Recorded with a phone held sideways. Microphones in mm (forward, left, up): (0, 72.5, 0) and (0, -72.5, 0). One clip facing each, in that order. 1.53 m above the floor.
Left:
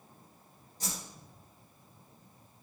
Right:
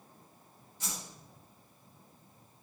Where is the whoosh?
35° left (ahead or behind), 3.5 m.